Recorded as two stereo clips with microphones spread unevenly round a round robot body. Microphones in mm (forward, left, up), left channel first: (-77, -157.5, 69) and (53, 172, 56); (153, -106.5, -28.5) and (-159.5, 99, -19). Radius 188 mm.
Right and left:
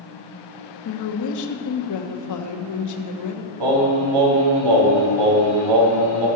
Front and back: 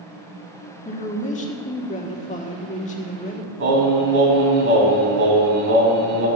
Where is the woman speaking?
100° right, 1.3 m.